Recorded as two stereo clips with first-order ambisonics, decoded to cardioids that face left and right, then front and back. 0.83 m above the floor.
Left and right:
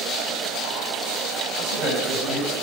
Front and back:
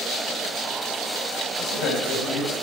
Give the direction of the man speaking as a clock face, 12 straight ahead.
1 o'clock.